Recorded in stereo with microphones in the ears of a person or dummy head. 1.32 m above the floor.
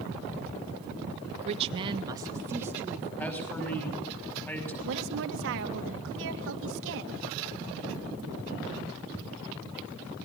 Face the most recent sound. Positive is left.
turn(degrees=-70)  # may be behind; listen again after turning